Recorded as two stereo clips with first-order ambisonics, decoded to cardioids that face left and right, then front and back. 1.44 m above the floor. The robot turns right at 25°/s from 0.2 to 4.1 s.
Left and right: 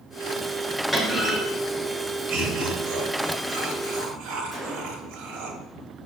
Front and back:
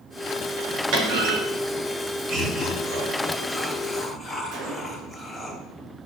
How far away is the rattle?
I don't hear a rattle.